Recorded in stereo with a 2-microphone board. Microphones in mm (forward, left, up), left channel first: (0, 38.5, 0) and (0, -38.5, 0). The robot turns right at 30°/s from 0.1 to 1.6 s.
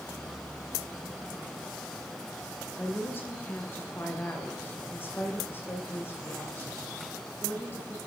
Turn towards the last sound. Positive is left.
turn(degrees=30)  # may be behind; listen again after turning